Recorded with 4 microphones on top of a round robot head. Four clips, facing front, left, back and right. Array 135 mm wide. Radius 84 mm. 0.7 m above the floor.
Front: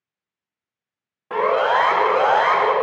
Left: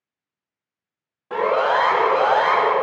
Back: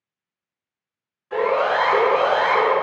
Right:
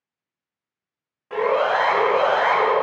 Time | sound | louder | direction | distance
1.3 | a siren | left 1 dB, front 2 dB | 25° left | 5 m